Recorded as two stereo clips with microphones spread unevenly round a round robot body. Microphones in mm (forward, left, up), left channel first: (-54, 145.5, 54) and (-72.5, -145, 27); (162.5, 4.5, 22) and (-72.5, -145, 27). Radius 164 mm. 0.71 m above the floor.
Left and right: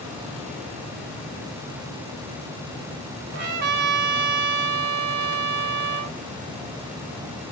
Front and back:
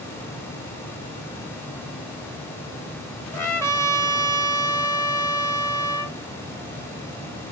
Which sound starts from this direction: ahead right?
A trumpet, at 3.3 s.